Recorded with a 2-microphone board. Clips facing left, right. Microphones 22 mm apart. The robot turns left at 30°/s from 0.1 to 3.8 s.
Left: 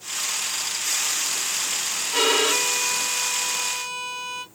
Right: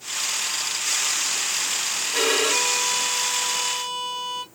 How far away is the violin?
About 1.7 m.